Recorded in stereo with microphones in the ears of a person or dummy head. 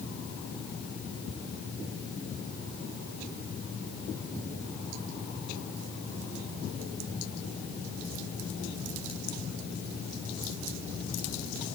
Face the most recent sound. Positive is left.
No sound to turn to.